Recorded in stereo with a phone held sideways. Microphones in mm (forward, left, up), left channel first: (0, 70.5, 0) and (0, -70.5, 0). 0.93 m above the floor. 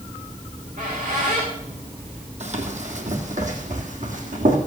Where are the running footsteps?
55° right (ahead or behind), 2.5 m; by 4.6 s 65° right (ahead or behind), 3.5 m.